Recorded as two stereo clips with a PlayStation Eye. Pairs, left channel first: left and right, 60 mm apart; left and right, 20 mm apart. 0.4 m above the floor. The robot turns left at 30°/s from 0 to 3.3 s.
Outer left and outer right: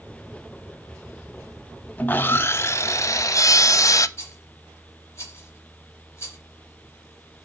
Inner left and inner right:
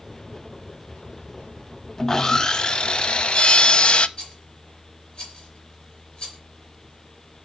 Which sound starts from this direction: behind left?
Sawing, at 2.0 s.